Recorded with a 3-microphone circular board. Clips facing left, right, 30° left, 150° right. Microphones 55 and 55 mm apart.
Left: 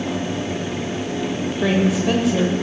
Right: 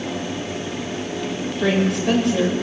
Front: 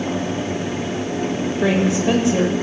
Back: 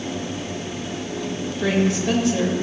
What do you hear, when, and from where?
1.6 s a woman speaking: 5° left, 0.9 m